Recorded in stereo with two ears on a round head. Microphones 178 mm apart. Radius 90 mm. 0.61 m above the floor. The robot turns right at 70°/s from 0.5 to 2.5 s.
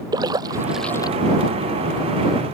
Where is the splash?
20° right (ahead or behind); by 1.6 s 55° left (ahead or behind).